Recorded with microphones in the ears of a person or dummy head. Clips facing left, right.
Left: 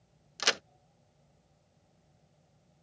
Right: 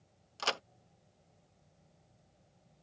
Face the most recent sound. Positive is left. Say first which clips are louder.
# left 2 dB
turn(degrees=20)  # may be behind; listen again after turning